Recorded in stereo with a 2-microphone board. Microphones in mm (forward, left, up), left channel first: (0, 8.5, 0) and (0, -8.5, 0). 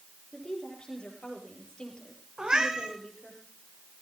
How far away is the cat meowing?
About 5 m.